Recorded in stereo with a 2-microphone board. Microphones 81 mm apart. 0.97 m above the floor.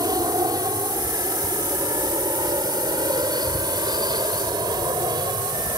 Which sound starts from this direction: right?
An aircraft, at 0.0 s.